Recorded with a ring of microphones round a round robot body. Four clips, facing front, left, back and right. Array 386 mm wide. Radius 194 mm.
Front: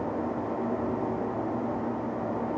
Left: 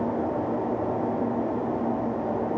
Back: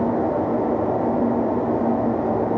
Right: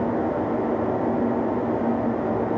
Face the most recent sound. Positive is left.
No sound to turn to.